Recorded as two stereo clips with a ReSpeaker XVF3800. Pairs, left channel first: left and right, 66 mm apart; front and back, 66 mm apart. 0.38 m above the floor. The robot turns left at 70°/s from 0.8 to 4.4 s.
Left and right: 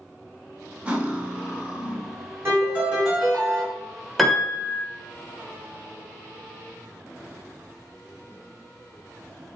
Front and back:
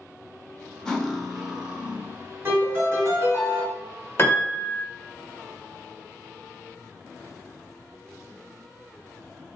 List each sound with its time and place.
0.8 s cutlery clinking: 60° right, 0.6 m; by 2.3 s 165° right, 0.6 m
2.5 s a piano: 125° right, 1.9 m; by 3.6 s 150° left, 1.9 m
4.2 s a piano: straight ahead, 0.7 m; by 4.8 s 15° right, 0.7 m